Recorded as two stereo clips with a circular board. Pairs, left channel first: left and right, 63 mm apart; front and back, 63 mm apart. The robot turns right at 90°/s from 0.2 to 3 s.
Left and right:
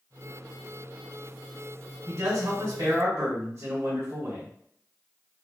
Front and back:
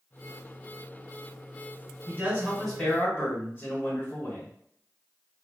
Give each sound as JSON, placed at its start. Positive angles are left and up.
{"t": 2.1, "sound": "a man speaking", "azimuth_deg": -140, "distance_m": 1.4}